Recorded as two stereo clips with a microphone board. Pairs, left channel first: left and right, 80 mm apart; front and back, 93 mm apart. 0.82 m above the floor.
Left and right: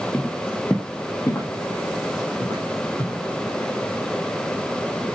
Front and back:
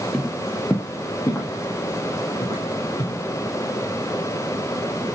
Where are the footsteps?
95° left, 0.8 m; by 3.2 s 50° left, 2 m.